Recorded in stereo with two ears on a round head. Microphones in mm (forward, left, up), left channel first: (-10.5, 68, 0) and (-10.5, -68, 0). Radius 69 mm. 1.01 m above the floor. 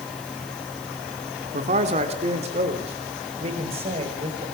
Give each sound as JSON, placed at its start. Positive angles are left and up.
{"t": 1.5, "sound": "a man speaking", "side_deg": -50, "distance_m": 2.5}